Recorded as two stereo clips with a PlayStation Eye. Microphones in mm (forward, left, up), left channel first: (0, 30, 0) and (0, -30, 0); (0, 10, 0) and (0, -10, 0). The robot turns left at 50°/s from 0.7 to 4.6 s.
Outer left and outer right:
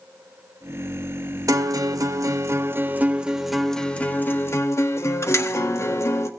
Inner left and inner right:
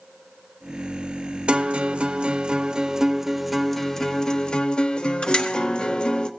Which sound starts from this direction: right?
A guitar, at 1.5 s.